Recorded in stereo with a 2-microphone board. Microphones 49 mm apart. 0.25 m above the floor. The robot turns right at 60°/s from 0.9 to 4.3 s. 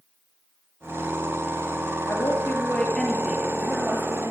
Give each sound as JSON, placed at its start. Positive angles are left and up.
{"t": 2.1, "sound": "a woman speaking", "azimuth_deg": 115, "distance_m": 6.0}